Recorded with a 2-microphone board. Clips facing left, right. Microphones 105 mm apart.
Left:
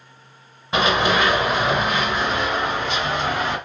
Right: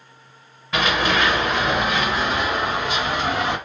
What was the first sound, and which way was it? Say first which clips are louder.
Running footsteps: left 2 dB; 25° left (ahead or behind).